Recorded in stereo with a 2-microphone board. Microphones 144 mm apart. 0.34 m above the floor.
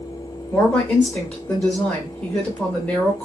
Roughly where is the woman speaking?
Centre.